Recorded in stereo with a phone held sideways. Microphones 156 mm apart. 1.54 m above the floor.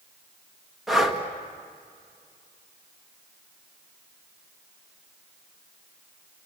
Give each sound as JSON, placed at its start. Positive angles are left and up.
{"t": 0.9, "sound": "breathing", "side_deg": 0, "distance_m": 1.8}